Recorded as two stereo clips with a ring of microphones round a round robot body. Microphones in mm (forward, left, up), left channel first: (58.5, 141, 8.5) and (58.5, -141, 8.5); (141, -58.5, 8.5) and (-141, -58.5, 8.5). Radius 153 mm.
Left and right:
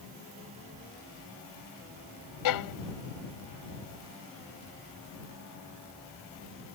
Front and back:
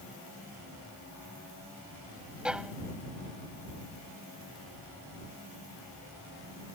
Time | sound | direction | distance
2.5 | a violin | 95° left | ?